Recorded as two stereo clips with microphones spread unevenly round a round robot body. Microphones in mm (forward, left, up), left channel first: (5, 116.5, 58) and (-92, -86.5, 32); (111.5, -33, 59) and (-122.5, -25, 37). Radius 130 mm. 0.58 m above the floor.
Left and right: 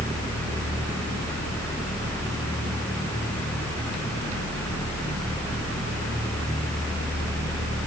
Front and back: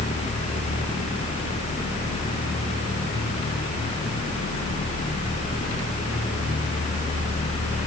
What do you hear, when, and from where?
Only background noise.